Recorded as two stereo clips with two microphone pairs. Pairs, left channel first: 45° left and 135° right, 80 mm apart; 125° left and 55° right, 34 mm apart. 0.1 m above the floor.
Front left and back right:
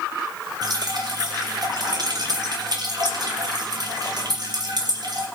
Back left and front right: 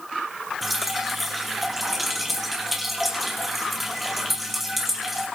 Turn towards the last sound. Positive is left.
turn(degrees=-140)